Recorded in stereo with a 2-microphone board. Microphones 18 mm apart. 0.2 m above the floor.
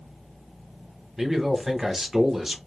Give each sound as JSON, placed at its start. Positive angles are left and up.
{"t": 1.2, "sound": "a man speaking", "side_deg": -15, "distance_m": 1.0}